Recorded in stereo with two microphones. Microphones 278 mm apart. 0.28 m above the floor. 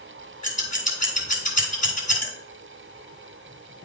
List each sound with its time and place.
0.4 s scissors: 25° left (ahead or behind), 2 m